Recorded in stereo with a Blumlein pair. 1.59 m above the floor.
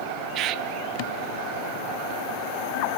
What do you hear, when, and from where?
0.3 s a bird: 35° right, 0.6 m